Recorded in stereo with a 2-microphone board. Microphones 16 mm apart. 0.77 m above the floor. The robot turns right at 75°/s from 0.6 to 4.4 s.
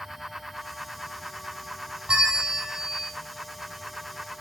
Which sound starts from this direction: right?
A bell, at 2.1 s.